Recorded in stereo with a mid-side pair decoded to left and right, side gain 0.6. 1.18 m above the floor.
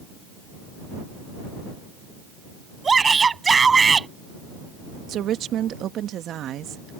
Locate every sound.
2.8 s a shout: 25° right
5.1 s a woman speaking: 50° right